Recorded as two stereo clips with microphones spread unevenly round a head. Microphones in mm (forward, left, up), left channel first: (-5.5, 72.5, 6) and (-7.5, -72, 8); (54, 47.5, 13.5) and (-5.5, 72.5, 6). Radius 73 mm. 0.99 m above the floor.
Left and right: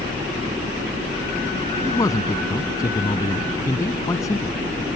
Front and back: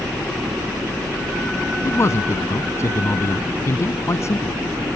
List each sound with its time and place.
1.9 s a man speaking: 20° left